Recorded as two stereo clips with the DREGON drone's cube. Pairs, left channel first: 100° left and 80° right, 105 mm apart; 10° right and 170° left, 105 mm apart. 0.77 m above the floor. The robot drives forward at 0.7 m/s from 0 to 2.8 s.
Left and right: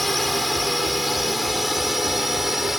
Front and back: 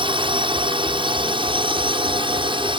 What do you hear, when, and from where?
0.0 s a drone: 170° right; by 2.8 s 165° right